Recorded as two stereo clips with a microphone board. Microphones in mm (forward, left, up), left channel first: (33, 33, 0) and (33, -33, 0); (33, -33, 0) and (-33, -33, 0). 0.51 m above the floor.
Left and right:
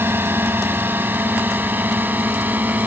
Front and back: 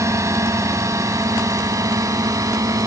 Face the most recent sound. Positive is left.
turn(degrees=-155)